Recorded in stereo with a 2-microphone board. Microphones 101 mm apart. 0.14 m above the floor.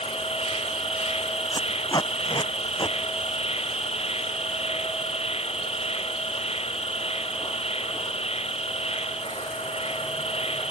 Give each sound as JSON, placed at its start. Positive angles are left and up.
{"t": 0.0, "sound": "an insect", "side_deg": 80}
{"t": 1.5, "sound": "tape being pulled", "side_deg": 40}